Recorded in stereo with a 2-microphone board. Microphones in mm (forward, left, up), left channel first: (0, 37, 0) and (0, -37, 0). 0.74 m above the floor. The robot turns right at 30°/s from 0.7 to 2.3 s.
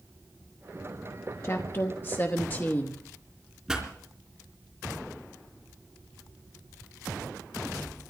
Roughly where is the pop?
Centre.